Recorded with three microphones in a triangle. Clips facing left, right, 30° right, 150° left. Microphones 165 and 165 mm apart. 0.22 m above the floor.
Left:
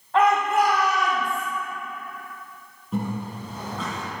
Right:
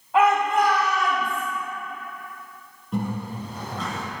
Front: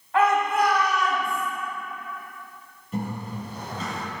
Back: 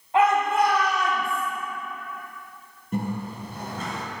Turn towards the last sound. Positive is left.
turn(degrees=180)